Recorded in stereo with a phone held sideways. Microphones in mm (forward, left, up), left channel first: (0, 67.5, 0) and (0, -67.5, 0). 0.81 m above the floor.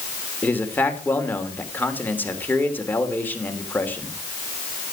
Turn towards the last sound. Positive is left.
turn(degrees=15)  # may be behind; listen again after turning